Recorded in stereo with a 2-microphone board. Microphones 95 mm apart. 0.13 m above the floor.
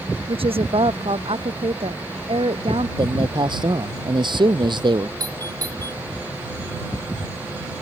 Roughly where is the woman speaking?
Right.